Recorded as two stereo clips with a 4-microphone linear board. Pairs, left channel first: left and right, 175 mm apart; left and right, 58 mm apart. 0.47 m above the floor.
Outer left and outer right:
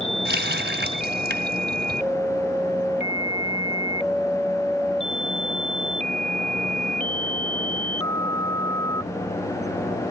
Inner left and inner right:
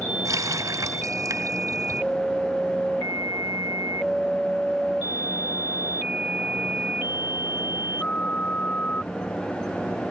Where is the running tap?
75° right (ahead or behind), 2 m.